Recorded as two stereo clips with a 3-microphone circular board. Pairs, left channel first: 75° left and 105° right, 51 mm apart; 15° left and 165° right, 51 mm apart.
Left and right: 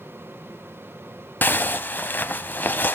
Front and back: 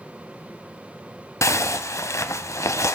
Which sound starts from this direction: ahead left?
A zipper, at 1.4 s.